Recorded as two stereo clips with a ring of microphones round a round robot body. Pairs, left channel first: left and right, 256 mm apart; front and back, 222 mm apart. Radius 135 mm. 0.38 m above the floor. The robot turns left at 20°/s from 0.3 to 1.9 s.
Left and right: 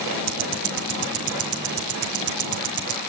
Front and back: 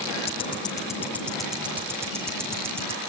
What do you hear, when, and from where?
0.3 s ticking: 65° right, 2.5 m; by 3.0 s 100° right, 2.5 m